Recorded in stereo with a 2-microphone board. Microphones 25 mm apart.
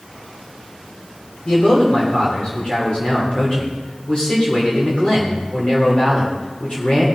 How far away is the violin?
No violin in this recording.